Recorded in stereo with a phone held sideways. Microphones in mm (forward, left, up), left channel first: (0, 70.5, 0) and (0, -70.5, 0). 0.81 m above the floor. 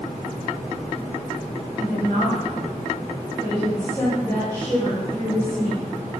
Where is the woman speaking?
25° left (ahead or behind), 2.5 m.